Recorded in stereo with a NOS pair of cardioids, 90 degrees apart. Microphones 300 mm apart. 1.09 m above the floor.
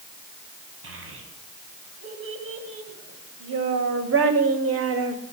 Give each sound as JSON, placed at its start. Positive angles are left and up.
{"t": 0.8, "sound": "a child speaking", "azimuth_deg": -45, "distance_m": 4.0}